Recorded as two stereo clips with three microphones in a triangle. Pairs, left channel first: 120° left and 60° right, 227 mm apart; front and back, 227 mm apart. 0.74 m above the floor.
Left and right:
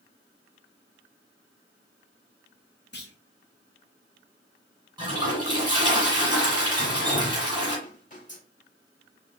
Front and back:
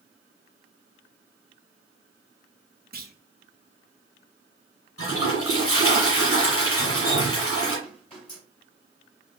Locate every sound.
2.9 s a clunk: 145° left, 0.6 m
5.0 s a toilet flushing: 10° left, 1.8 m
6.8 s dripping: 65° left, 3 m